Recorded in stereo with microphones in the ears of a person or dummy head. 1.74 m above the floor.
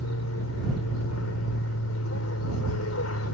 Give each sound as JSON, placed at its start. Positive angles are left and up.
{"t": 0.0, "sound": "an aircraft", "side_deg": 75}